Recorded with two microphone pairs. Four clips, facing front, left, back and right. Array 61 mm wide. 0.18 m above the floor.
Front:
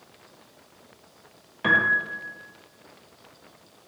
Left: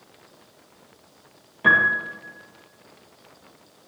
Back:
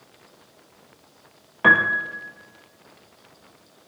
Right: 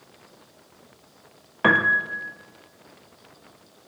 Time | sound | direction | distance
1.6 | a piano | 125° right | 1.6 m